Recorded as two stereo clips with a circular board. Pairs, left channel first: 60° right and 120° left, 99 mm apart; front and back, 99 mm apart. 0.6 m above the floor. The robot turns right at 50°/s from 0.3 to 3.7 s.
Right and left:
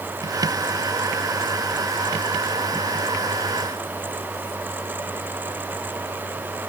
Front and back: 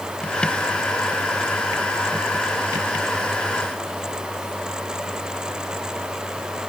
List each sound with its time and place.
Only background noise.